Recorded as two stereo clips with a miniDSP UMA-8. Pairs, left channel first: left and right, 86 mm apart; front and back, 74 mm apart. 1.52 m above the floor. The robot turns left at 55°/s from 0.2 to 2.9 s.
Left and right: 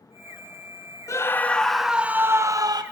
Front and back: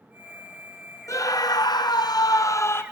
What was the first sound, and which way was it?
A scream, 40° left.